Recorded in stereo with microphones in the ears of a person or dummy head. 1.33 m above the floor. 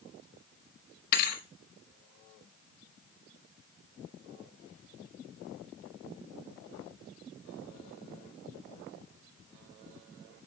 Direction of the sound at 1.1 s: 55° left (ahead or behind).